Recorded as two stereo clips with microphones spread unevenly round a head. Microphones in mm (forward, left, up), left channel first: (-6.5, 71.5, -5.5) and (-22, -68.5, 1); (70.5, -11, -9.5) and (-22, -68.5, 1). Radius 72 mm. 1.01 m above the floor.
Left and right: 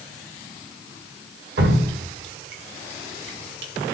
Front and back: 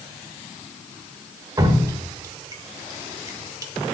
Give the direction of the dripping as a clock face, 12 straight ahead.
3 o'clock.